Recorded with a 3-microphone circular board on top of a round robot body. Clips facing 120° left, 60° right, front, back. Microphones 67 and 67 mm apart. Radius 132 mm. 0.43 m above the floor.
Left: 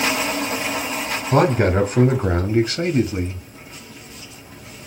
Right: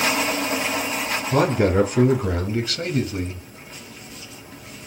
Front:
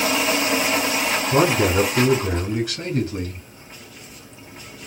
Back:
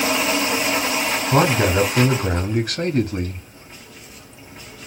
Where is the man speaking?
130° left, 1.9 m; by 3.5 s straight behind, 1.1 m.